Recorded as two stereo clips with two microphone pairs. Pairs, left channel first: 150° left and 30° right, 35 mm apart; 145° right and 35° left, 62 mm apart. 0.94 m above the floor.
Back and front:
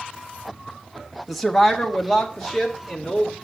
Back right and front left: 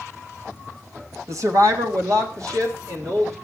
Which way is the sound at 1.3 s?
60° left.